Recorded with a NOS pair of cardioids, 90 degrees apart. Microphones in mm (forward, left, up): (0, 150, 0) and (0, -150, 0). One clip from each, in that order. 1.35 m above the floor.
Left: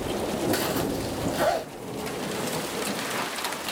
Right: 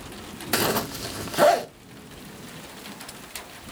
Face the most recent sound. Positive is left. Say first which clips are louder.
# right 2 dB
turn(degrees=-30)